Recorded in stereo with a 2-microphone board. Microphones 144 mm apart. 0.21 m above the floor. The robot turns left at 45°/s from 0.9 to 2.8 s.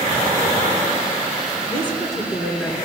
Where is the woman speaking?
130° right, 2.5 m; by 2.8 s straight behind, 2.5 m.